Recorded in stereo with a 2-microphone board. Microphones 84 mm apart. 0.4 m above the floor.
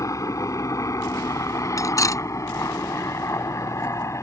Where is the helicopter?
40° left (ahead or behind); by 4.2 s 35° left (ahead or behind).